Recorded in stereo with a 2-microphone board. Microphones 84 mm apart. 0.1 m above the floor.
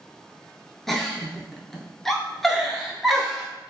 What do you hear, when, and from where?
0.9 s a giggle: centre (ahead or behind), 0.5 m